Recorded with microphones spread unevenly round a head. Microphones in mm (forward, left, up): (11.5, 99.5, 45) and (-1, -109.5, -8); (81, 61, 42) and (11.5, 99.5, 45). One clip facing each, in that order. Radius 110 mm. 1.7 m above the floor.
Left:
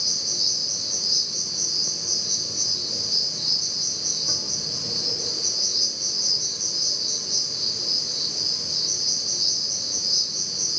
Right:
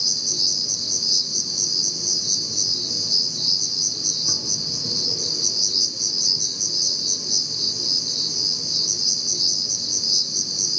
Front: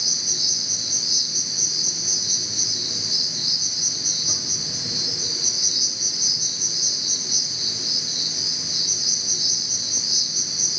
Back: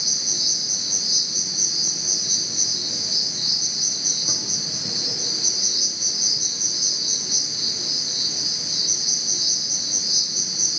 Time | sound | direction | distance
0.0 | an insect | 135° right | 0.8 m